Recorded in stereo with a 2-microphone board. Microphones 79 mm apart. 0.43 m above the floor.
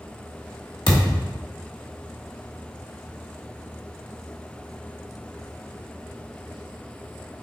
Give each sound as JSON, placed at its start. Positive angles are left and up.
{"t": 0.9, "sound": "a thud", "side_deg": 70, "distance_m": 1.0}